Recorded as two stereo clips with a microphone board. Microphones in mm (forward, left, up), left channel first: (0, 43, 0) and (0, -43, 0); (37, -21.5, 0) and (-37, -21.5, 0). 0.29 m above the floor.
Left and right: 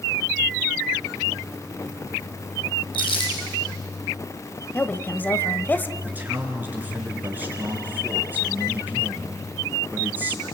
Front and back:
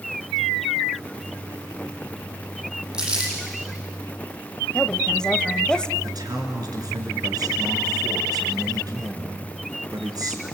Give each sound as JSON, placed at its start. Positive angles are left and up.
{"t": 2.9, "sound": "crumpling", "azimuth_deg": 100, "distance_m": 6.5}
{"t": 4.7, "sound": "a woman speaking", "azimuth_deg": 60, "distance_m": 0.9}
{"t": 6.0, "sound": "a man speaking", "azimuth_deg": -160, "distance_m": 4.0}